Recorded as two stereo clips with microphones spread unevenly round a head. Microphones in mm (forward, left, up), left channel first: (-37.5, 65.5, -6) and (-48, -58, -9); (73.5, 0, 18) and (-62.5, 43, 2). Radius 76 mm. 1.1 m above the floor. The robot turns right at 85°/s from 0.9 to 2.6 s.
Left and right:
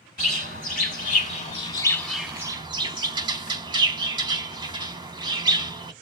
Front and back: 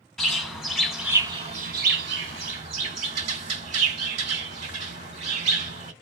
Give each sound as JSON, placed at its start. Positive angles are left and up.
{"t": 0.2, "sound": "a bird", "azimuth_deg": 70, "distance_m": 1.8}